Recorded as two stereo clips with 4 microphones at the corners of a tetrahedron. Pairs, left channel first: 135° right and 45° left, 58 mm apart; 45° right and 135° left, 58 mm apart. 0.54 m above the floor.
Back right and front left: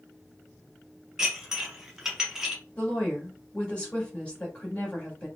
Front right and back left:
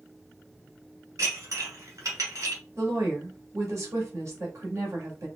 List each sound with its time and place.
1.2 s dishes clattering: 125° left, 1.8 m
2.8 s a woman speaking: 160° left, 1.7 m